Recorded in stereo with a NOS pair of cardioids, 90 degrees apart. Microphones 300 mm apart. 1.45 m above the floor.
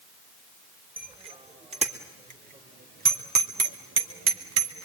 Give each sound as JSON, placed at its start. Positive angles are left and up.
{"t": 1.0, "sound": "a bicycle bell", "azimuth_deg": -15, "distance_m": 3.5}